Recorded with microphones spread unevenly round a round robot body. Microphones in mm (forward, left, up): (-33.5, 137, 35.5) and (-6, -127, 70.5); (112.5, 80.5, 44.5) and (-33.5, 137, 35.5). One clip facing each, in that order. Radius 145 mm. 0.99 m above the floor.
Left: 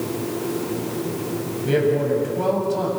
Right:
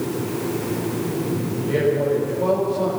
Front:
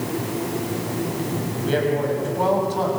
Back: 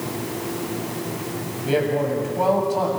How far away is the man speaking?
About 8.5 m.